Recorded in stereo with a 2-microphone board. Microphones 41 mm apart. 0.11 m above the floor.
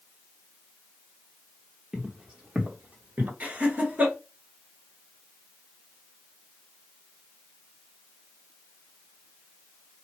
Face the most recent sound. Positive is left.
turn(degrees=-40)  # may be behind; listen again after turning